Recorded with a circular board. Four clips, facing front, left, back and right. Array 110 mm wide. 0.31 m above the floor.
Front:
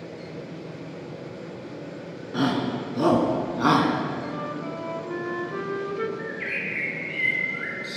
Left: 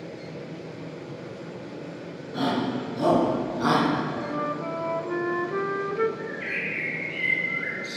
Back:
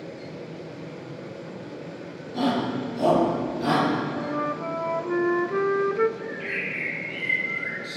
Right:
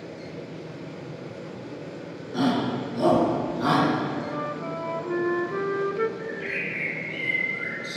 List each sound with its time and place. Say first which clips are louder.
2.3 s a shout: right 2 dB, even; 10° right, 3.5 m; by 3.9 s 10° left, 3 m
4.2 s a flute: left 1 dB, back 3 dB; 165° left, 0.5 m
6.2 s a bird: right 1 dB, even; 15° left, 4 m